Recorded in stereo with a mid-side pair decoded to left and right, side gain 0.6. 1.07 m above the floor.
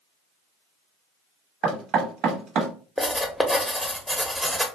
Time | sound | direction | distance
1.6 | knocking | 55° right | 0.9 m
3.0 | writing | straight ahead | 0.8 m